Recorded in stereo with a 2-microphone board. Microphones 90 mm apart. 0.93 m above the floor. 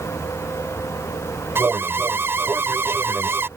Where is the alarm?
25° right (ahead or behind).